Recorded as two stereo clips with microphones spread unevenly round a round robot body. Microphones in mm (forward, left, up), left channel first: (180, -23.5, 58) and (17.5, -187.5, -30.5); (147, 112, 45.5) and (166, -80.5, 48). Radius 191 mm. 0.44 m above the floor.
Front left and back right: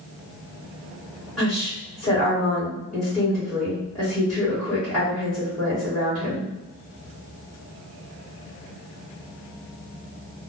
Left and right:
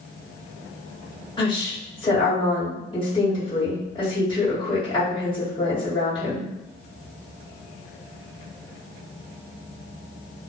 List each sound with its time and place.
1.4 s a woman speaking: 155° left, 1.2 m